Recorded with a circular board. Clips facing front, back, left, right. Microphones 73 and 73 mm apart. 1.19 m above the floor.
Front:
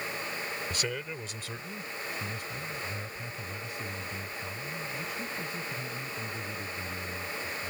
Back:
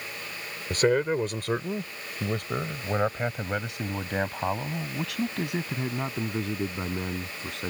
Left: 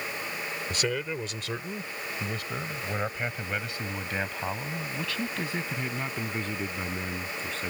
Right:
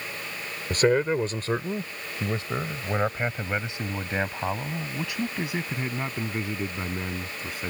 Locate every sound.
0.7 s a man speaking: 135° right; by 7.7 s 170° right